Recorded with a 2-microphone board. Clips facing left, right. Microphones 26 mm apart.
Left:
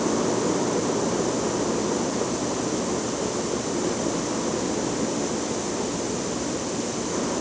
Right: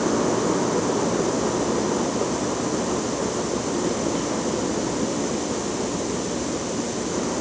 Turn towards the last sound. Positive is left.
No sound to turn to.